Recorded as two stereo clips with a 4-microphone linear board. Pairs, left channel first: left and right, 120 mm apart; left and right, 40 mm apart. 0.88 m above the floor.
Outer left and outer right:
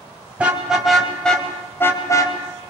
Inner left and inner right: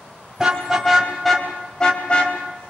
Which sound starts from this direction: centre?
A car horn, at 0.4 s.